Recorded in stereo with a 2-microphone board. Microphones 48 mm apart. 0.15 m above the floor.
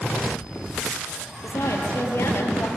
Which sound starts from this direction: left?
A woman speaking, at 1.4 s.